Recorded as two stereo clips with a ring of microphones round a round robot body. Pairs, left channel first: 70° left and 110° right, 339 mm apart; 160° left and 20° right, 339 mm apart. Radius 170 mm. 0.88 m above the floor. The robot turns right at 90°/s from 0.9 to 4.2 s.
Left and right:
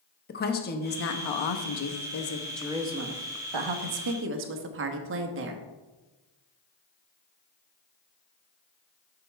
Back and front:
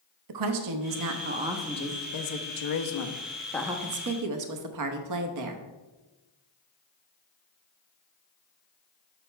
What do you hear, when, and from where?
0.3 s a woman speaking: 5° left, 0.9 m; by 5.7 s 60° right, 0.9 m